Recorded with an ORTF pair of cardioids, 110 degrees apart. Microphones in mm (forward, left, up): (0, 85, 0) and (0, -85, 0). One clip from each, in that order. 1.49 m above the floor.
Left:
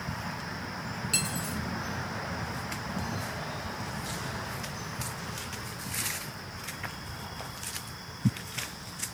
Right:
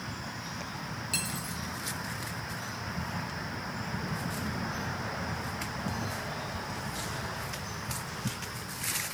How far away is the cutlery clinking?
About 1.7 m.